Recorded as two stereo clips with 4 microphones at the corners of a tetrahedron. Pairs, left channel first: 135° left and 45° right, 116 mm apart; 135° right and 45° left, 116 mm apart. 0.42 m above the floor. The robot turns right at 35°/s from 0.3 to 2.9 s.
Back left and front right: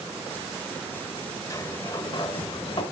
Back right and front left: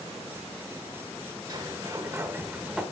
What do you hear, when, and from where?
1.5 s a sliding door: 85° left, 1.3 m; by 2.8 s 130° left, 1.3 m